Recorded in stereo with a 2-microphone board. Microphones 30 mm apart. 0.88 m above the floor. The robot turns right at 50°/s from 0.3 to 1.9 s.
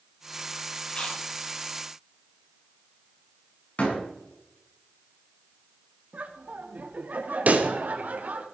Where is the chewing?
30° left (ahead or behind), 7 m; by 1.2 s 45° left (ahead or behind), 7 m.